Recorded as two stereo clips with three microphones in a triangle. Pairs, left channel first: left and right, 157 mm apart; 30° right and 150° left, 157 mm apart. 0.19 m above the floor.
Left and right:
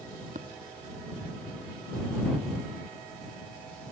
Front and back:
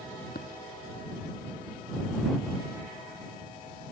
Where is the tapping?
50° right.